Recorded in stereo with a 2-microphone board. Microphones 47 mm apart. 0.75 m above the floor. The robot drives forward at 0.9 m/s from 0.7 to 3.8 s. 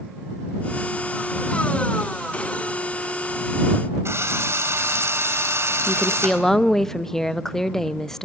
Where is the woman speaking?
10° left (ahead or behind), 0.5 m.